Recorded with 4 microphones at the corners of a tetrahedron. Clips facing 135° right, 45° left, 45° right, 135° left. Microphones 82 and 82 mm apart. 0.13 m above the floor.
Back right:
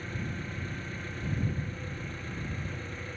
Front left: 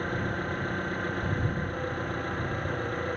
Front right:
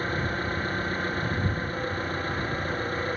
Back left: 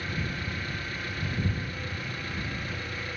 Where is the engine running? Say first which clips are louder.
Front left 7 dB, front right 6 dB; 5° left.